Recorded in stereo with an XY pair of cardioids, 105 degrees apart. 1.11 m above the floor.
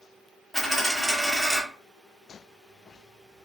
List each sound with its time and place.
0.5 s a dropped coin: 5° left, 1.2 m